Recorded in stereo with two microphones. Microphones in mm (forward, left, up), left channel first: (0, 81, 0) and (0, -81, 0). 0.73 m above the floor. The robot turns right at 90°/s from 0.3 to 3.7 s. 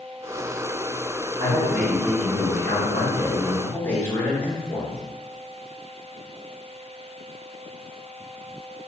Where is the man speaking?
40° right, 0.9 m; by 5.0 s 165° left, 0.9 m.